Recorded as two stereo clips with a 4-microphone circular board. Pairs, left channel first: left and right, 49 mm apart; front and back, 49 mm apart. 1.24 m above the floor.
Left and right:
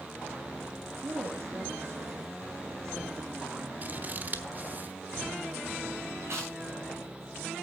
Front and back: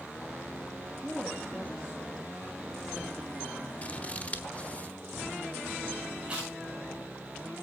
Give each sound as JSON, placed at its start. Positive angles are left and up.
{"t": 1.0, "sound": "a woman speaking", "azimuth_deg": -105, "distance_m": 2.0}
{"t": 3.8, "sound": "scissors", "azimuth_deg": -50, "distance_m": 1.2}
{"t": 6.2, "sound": "chewing", "azimuth_deg": -115, "distance_m": 9.0}